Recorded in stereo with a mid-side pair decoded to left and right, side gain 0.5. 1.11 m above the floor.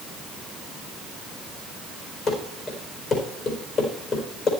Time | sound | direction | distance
2.3 | running footsteps | 45° left | 4 m